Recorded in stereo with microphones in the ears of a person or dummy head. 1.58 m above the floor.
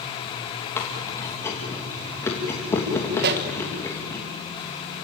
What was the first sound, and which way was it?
Chewing, 20° left (ahead or behind).